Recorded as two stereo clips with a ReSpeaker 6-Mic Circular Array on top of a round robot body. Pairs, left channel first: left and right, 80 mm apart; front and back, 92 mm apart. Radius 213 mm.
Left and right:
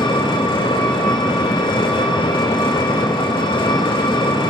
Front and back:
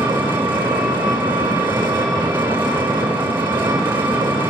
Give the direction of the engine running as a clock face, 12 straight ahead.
8 o'clock.